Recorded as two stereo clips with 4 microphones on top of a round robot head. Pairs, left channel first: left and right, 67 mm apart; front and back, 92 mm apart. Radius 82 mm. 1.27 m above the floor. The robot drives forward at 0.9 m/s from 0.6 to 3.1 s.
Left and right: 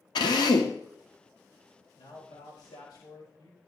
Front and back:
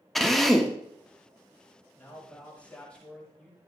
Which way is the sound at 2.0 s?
70° left.